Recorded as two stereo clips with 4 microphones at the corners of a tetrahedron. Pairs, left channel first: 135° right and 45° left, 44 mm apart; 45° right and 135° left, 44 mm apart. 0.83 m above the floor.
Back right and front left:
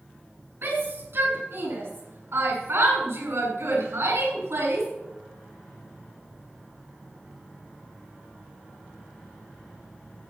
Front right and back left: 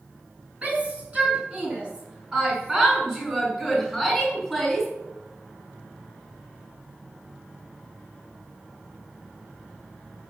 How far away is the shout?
About 7.5 m.